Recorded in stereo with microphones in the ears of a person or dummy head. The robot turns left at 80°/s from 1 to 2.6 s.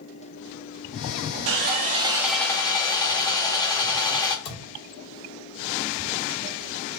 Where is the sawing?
115° right, 1.0 m; by 4.3 s 155° left, 1.0 m.